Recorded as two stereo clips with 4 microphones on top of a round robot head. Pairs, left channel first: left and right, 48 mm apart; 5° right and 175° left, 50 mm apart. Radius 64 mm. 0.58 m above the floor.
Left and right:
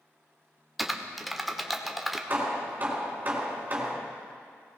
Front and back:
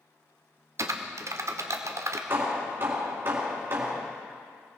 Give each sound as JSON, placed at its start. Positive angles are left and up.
{"t": 0.8, "sound": "typing on a keyboard", "azimuth_deg": 180, "distance_m": 1.3}
{"t": 2.3, "sound": "hammering", "azimuth_deg": -140, "distance_m": 3.0}